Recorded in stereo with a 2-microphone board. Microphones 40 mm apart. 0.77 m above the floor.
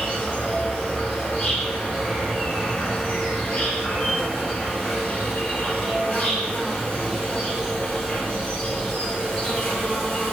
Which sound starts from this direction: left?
An insect, at 0.0 s.